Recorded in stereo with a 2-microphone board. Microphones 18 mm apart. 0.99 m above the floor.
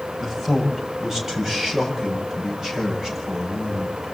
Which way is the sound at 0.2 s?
20° right (ahead or behind).